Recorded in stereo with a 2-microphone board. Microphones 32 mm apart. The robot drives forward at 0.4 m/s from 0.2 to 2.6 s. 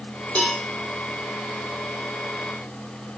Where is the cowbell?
50° left (ahead or behind), 1.2 m; by 0.6 s 55° left (ahead or behind), 1.2 m.